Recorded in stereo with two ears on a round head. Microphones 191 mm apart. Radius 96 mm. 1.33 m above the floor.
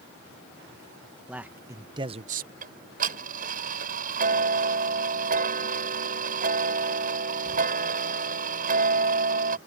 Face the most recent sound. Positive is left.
turn(degrees=-40)  # may be behind; listen again after turning